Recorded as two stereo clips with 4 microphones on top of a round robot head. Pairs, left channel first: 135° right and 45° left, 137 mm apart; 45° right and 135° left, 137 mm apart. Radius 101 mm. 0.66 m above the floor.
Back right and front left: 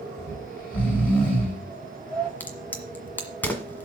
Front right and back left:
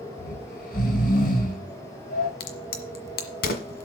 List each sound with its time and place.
0.2 s snoring: 55° right, 4.5 m
2.4 s a crack: 60° right, 1.6 m